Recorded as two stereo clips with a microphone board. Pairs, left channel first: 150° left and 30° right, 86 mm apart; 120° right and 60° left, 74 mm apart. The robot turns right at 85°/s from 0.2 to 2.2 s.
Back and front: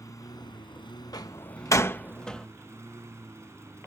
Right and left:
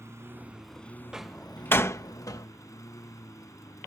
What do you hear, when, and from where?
0.0 s a lawn mower: 105° left; by 3.9 s 85° right
1.1 s a door slam: 135° left; by 2.5 s 130° right